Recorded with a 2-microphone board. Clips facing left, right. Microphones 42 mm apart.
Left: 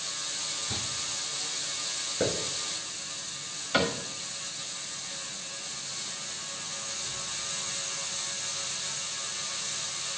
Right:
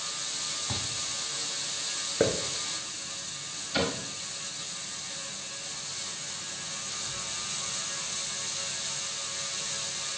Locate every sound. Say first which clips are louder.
0.7 s a thud: right 2 dB; 45° right (ahead or behind), 3.5 m
2.2 s a hiss: right 3 dB; 25° right (ahead or behind), 1.1 m
3.7 s a cupboard door: left 3 dB; 60° left (ahead or behind), 2.0 m